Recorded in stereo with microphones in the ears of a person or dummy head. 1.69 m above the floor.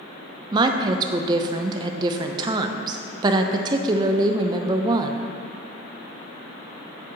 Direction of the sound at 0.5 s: 25° right (ahead or behind).